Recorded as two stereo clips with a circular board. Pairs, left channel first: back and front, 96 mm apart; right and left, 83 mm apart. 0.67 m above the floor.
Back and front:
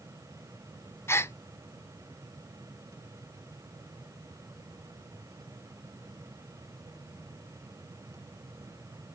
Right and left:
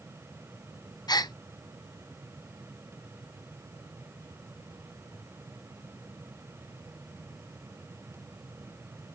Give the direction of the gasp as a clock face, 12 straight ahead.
4 o'clock.